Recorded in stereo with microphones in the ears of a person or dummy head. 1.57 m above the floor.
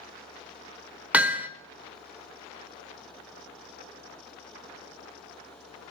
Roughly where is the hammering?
Centre.